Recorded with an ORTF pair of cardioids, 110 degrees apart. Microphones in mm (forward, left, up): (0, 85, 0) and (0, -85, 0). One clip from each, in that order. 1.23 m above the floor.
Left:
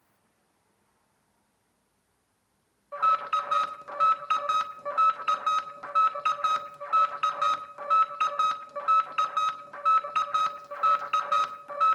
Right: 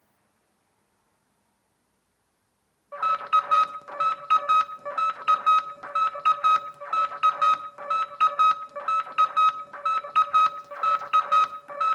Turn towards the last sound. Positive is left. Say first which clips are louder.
# right 2 dB
turn(degrees=-5)